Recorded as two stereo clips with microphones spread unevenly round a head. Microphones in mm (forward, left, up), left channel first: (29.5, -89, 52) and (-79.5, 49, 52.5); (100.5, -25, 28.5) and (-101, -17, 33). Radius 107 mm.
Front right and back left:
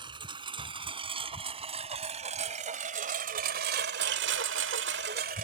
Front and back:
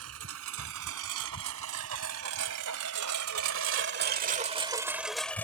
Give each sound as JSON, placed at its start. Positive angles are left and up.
{"t": 0.0, "sound": "a lawn mower", "azimuth_deg": -170}